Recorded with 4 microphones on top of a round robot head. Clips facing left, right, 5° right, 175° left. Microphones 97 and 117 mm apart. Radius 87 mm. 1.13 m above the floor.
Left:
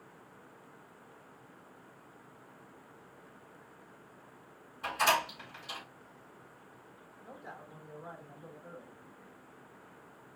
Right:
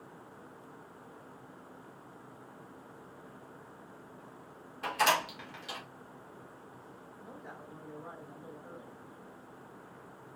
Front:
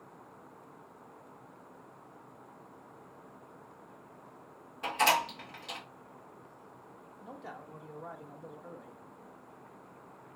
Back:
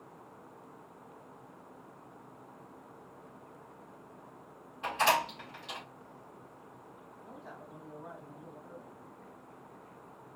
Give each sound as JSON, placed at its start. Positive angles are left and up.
{"t": 4.8, "sound": "a door slam", "azimuth_deg": -55, "distance_m": 2.0}
{"t": 7.2, "sound": "a man speaking", "azimuth_deg": 5, "distance_m": 1.1}